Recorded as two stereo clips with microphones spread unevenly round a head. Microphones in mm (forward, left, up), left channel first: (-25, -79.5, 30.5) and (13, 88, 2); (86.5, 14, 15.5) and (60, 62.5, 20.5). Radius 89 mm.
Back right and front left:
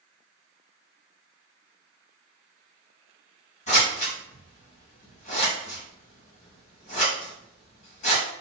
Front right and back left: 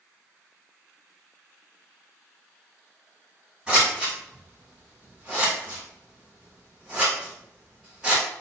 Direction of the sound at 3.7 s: 155° right.